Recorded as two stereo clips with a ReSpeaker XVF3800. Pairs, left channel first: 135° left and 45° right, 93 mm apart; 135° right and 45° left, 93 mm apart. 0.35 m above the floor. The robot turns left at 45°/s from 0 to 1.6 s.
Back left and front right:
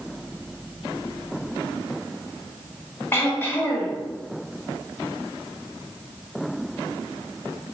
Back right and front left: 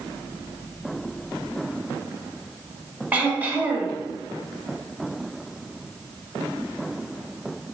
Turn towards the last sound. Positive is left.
turn(degrees=100)